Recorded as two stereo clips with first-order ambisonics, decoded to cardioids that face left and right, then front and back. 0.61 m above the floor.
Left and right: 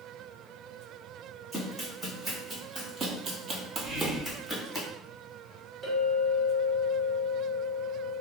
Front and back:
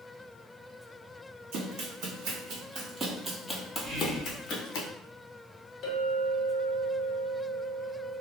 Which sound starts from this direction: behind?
Running footsteps, at 1.5 s.